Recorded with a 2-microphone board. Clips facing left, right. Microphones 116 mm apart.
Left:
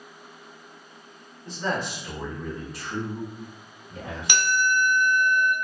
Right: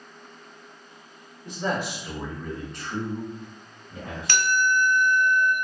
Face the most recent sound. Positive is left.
turn(degrees=20)  # may be behind; listen again after turning